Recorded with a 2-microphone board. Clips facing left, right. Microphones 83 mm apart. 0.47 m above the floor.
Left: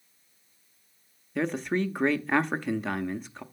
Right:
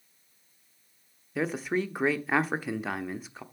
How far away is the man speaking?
About 0.7 m.